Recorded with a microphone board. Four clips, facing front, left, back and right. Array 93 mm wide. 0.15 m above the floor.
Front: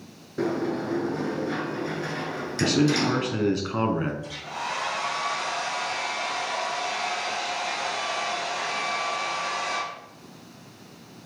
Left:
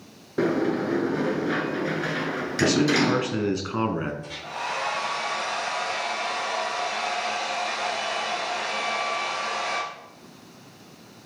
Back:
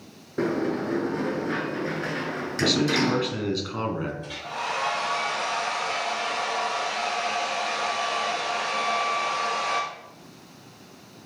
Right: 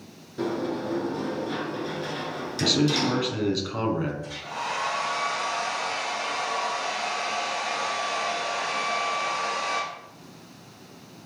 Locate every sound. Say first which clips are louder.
0.4 s a sliding door: left 5 dB, back 1 dB; 110° left, 0.7 m
2.6 s a man speaking: left 3 dB, front 1 dB; 55° left, 1.4 m
4.2 s a hair dryer: even, back 1 dB; 155° left, 3.5 m